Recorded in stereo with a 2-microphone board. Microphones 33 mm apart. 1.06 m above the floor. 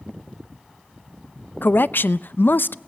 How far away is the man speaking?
About 0.6 m.